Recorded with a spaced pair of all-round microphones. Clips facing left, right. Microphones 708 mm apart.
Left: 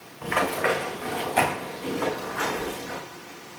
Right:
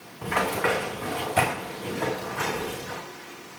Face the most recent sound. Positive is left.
turn(degrees=-55)  # may be behind; listen again after turning